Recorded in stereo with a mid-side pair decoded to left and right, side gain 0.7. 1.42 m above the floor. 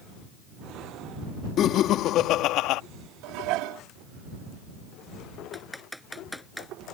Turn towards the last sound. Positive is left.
turn(degrees=5)